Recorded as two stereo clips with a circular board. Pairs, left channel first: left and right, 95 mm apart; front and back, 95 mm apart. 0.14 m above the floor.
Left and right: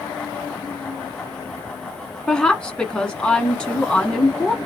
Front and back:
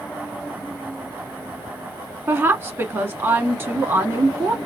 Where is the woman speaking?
160° left, 1.1 m.